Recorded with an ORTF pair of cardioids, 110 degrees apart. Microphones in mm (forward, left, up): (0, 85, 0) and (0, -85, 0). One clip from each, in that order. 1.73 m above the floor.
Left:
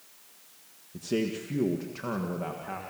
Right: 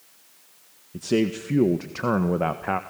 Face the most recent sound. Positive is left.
turn(degrees=-70)